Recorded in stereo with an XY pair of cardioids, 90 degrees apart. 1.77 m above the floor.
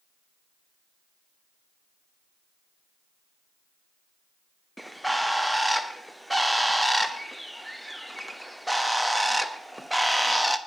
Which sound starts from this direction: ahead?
A bird, at 4.8 s.